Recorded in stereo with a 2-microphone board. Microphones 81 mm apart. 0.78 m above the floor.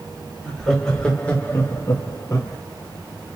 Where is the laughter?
Centre (ahead or behind), 1.4 m; by 2.6 s 45° left (ahead or behind), 0.9 m.